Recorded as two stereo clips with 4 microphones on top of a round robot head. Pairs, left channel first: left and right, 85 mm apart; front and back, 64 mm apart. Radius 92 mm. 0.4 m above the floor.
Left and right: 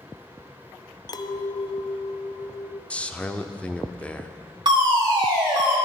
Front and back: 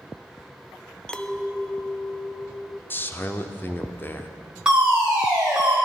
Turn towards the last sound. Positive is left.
turn(degrees=-105)